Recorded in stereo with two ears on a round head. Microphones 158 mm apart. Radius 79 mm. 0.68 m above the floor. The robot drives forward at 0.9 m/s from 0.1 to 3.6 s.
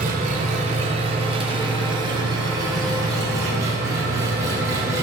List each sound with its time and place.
0.0 s an engine running: 50° right (ahead or behind), 1.9 m; by 5.0 s 20° right (ahead or behind), 4.5 m